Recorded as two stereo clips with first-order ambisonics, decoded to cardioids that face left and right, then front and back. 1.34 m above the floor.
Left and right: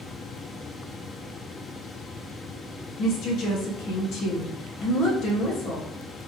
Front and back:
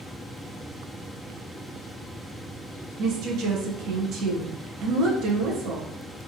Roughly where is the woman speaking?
Behind left.